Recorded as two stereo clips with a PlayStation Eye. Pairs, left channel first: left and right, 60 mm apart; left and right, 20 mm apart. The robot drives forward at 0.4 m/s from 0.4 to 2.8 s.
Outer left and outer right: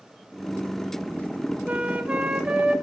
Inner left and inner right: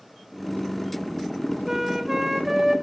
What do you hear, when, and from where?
1.7 s a flute: 25° right (ahead or behind), 1.1 m; by 2.7 s 20° right (ahead or behind), 1.5 m